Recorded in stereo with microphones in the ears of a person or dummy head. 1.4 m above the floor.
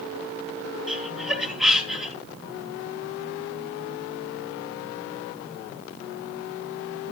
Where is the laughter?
5° right (ahead or behind), 4 m.